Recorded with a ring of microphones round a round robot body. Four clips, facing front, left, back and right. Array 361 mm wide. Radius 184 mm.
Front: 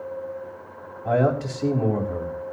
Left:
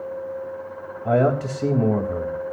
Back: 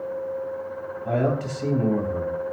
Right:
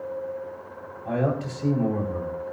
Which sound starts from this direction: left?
A man speaking, at 1.1 s.